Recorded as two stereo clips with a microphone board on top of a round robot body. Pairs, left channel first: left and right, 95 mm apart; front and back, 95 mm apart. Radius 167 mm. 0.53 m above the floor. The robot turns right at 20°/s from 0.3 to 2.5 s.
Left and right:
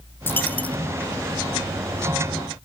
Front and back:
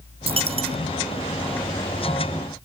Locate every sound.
0.3 s a dropped coin: 160° left; by 0.8 s 170° left